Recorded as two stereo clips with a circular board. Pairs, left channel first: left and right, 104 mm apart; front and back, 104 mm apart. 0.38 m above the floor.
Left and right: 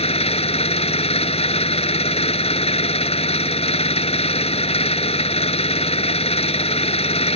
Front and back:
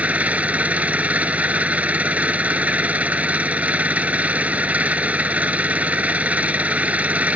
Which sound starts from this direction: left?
An engine running, at 0.0 s.